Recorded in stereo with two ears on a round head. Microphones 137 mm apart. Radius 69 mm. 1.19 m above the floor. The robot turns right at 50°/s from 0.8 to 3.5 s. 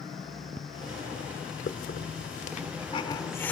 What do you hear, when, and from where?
1.7 s a hiss: 55° left (ahead or behind), 1.2 m; by 3.5 s 10° left (ahead or behind), 1.2 m